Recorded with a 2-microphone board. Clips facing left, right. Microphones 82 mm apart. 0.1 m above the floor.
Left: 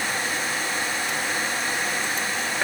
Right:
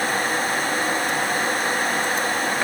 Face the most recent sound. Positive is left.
No sound to turn to.